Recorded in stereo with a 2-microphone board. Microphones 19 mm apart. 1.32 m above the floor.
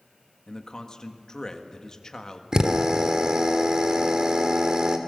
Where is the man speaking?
45° left (ahead or behind), 1.7 m.